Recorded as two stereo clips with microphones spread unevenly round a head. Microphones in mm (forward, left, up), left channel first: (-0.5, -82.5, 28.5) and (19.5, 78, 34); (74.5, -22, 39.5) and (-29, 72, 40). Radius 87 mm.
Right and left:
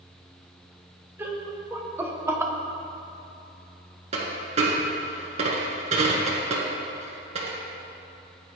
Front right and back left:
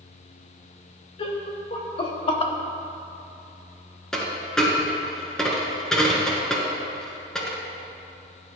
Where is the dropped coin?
40° left, 1.8 m.